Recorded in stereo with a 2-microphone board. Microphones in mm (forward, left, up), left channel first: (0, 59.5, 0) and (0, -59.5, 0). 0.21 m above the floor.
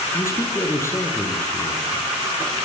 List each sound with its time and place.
0.1 s a man speaking: 20° left (ahead or behind), 7 m